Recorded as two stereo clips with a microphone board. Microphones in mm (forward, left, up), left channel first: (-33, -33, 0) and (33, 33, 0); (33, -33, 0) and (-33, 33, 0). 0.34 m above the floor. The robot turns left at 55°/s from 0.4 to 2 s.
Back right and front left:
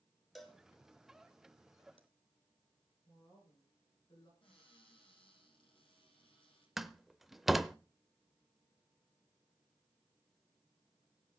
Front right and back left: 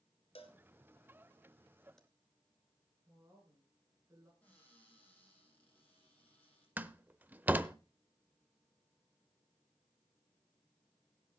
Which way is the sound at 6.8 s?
125° left.